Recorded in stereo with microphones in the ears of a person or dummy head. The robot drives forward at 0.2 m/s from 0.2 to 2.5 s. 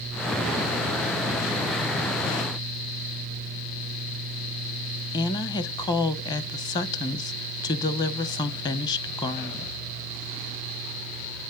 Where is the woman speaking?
25° left (ahead or behind), 0.8 m.